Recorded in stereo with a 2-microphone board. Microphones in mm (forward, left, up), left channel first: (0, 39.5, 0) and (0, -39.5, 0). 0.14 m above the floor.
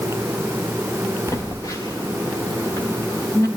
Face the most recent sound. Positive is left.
turn(degrees=45)  # may be behind; listen again after turning